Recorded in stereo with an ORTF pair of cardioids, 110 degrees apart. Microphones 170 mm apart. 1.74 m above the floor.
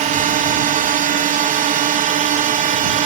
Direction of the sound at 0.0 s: 50° right.